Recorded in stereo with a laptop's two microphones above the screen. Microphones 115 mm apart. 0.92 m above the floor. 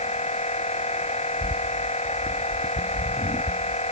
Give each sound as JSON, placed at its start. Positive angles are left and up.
{"t": 0.0, "sound": "a machine running", "side_deg": 70}